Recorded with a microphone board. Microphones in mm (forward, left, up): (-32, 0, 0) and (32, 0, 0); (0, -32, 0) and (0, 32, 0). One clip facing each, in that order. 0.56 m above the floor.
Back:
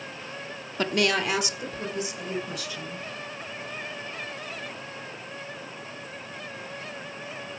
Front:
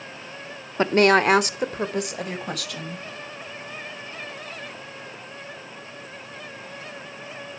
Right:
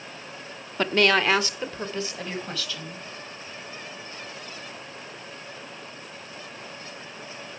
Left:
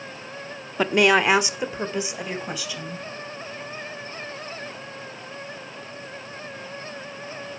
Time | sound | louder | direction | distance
0.8 | a woman speaking | front 8 dB, left 3 dB | 20° left | 0.9 m